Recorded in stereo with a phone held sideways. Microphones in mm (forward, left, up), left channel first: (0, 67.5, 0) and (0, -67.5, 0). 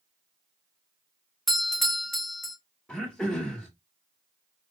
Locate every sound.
1.5 s a doorbell: centre (ahead or behind), 0.8 m
2.9 s throat clearing: 5° left (ahead or behind), 1.8 m